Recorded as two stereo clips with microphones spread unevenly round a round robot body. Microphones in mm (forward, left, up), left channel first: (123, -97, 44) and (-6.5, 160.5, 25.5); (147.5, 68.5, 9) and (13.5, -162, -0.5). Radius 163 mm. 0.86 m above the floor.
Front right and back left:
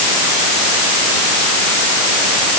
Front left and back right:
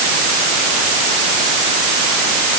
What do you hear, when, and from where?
Only background noise.